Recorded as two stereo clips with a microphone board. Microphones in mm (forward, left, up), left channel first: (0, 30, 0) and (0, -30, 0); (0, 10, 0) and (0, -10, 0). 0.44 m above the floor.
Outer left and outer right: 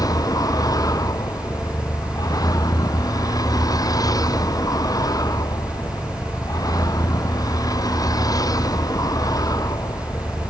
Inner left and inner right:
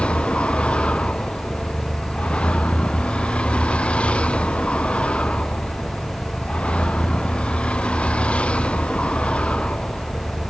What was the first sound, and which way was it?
A vehicle, 85° left.